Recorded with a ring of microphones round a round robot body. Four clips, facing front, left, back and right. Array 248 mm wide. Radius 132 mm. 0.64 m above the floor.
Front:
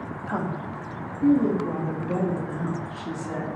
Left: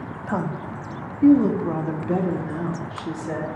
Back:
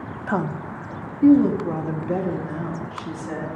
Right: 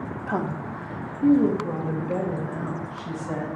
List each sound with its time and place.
0.3 s a woman speaking: straight behind, 0.6 m; by 3.5 s 110° left, 1.8 m